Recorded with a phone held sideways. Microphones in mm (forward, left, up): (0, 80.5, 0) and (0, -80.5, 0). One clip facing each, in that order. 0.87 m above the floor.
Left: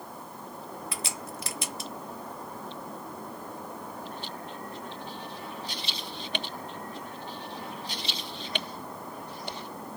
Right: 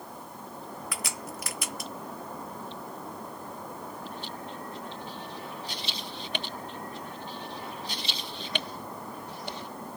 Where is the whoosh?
No whoosh in this recording.